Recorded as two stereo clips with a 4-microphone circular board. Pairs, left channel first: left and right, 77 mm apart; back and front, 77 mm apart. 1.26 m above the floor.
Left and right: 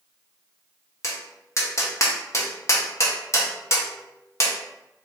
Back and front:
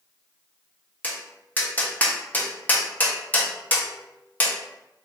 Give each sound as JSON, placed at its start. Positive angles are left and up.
{"t": 1.0, "sound": "tapping", "azimuth_deg": 120, "distance_m": 0.7}